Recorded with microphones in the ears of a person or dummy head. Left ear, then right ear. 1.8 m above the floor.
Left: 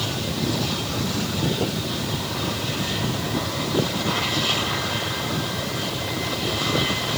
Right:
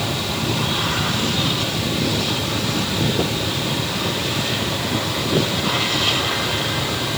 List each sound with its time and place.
Only background noise.